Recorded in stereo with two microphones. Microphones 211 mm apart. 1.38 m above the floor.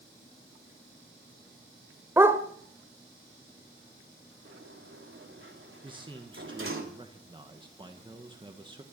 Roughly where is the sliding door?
Right.